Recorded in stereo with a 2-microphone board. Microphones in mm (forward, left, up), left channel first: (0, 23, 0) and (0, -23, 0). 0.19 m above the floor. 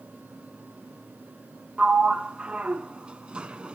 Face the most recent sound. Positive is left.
turn(degrees=-25)  # may be behind; listen again after turning